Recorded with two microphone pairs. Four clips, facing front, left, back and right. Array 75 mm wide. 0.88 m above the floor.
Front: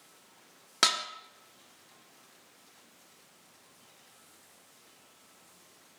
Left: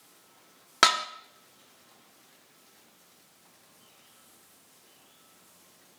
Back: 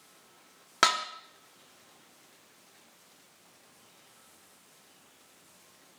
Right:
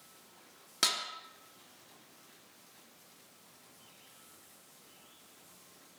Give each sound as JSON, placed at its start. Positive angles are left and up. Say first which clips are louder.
{"t": 0.8, "sound": "dishes clattering", "louder": "left 14 dB, back 4 dB", "azimuth_deg": 120, "distance_m": 1.0}